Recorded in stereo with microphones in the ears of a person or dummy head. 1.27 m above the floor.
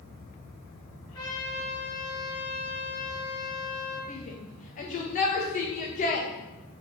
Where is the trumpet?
25° left (ahead or behind), 5 m.